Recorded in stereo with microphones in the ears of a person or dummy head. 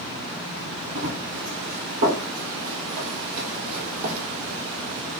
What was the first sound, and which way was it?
Running footsteps, 55° right (ahead or behind).